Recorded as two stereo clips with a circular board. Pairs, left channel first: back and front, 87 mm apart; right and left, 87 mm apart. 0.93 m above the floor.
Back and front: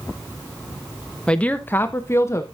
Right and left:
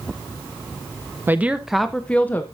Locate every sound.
1.3 s a woman speaking: 120° left, 0.8 m; by 2.4 s 145° right, 0.9 m